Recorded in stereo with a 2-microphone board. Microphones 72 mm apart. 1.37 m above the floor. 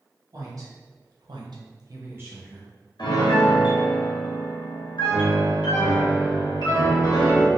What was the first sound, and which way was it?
A woman speaking, 45° right (ahead or behind).